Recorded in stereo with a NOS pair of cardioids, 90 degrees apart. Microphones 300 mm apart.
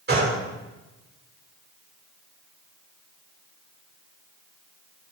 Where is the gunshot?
35° right, 3 m.